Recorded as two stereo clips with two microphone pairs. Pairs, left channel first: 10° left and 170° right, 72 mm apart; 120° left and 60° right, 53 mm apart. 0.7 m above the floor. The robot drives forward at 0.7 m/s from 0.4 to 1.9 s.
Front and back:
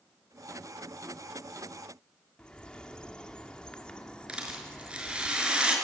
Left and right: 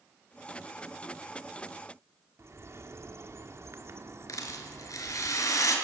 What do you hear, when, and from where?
2.4 s a bird: 65° right, 2 m
4.3 s a rattle: 115° left, 4.5 m